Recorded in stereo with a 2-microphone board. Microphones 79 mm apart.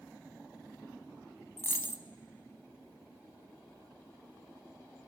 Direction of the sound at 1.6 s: 25° left (ahead or behind).